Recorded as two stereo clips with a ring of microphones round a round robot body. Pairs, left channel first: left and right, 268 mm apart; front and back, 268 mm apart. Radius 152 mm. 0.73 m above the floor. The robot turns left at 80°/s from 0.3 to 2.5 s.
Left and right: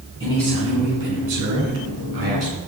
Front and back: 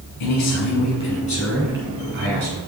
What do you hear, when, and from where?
0.2 s a man speaking: 15° left, 7 m; by 2.6 s 160° right, 7 m